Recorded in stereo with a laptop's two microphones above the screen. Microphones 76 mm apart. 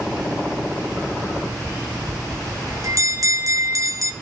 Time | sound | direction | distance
2.1 | a bell | 45° right (ahead or behind) | 1.8 m